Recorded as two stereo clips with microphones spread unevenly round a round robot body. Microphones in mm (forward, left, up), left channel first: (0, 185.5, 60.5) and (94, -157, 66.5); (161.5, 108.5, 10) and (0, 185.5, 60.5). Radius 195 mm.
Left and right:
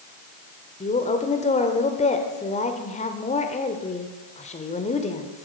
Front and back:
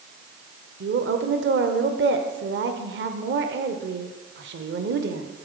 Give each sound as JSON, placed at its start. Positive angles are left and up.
{"t": 0.8, "sound": "a woman speaking", "azimuth_deg": 170, "distance_m": 1.2}